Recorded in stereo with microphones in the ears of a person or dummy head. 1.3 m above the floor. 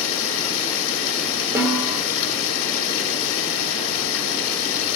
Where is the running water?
70° left (ahead or behind), 1.9 m.